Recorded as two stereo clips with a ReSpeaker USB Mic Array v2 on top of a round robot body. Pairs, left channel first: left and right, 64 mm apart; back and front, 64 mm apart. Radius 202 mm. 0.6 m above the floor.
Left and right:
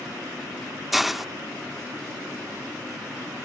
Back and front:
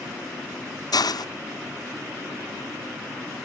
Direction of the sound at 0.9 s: 175° right.